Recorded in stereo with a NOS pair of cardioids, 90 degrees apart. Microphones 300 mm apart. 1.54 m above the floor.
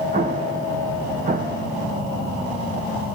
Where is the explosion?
25° right, 2 m.